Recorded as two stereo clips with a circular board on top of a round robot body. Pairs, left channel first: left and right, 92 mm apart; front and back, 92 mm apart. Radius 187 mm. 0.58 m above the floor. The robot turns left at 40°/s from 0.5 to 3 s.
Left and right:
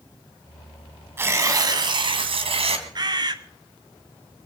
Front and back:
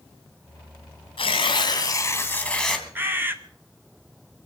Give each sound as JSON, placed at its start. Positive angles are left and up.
{"t": 1.2, "sound": "tearing paper", "azimuth_deg": -25, "distance_m": 2.5}
{"t": 3.0, "sound": "a bird", "azimuth_deg": -115, "distance_m": 1.7}